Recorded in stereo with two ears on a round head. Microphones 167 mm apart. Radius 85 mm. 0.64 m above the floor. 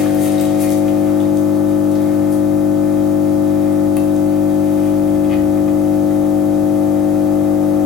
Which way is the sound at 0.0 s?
Centre (ahead or behind).